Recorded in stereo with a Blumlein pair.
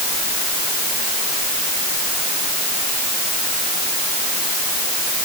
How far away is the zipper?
I don't hear a zipper.